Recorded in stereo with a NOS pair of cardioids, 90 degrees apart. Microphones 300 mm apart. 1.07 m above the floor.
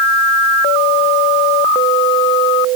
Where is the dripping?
I don't hear dripping.